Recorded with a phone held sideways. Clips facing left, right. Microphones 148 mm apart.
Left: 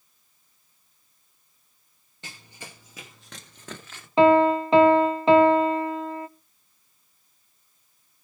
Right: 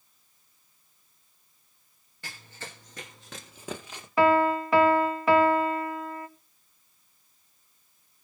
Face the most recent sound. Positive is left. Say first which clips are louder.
# left 5 dB
turn(degrees=25)  # may be behind; listen again after turning